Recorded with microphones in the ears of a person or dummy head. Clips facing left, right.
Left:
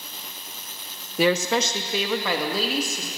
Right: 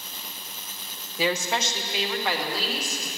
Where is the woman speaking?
55° left (ahead or behind), 0.9 m; by 3.1 s 70° left (ahead or behind), 2.5 m.